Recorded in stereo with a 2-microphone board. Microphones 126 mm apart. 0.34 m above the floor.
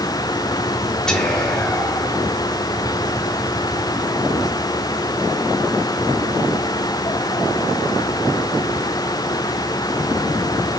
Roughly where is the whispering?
Centre.